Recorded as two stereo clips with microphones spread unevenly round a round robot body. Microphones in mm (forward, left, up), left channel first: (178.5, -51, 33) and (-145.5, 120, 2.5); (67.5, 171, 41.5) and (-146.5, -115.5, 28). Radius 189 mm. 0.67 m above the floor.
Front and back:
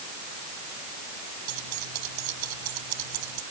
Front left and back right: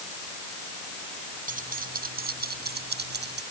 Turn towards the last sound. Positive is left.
turn(degrees=170)